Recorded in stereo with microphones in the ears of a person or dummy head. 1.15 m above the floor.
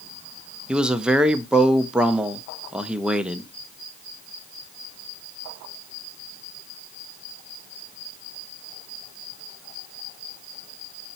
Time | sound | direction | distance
0.7 | a man speaking | 10° right (ahead or behind) | 0.7 m